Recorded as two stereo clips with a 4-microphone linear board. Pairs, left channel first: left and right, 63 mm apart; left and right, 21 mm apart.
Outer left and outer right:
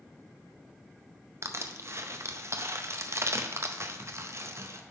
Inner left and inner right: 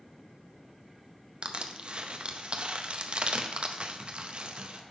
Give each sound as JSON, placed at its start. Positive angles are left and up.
{"t": 1.4, "sound": "crushing", "side_deg": -45, "distance_m": 0.5}